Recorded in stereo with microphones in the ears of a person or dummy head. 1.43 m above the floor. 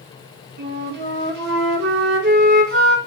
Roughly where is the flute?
Right.